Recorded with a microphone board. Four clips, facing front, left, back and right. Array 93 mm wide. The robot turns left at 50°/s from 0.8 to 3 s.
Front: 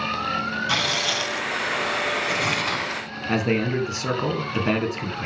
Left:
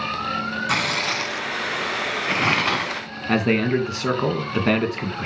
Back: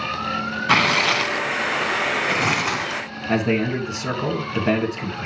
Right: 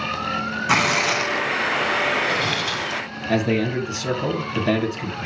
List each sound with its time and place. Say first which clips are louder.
0.7 s tearing paper: right 7 dB, back 7 dB; 155° right, 0.6 m; by 3.0 s 95° left, 0.6 m
3.3 s a man speaking: left 1 dB, back 2 dB; 85° left, 2 m